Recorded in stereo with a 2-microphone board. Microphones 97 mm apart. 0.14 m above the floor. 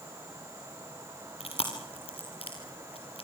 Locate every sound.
1.4 s chewing: 80° left, 4 m